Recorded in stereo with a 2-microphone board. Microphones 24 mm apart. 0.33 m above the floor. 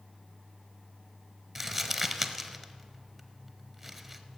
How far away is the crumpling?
About 0.9 m.